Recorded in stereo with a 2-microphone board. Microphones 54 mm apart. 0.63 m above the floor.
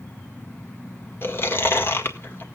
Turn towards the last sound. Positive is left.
turn(degrees=45)  # may be behind; listen again after turning